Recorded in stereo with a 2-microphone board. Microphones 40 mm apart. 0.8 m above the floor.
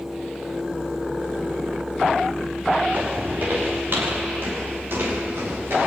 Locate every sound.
2.9 s footsteps: 45° right (ahead or behind), 5.5 m; by 5.9 s 70° right (ahead or behind), 8 m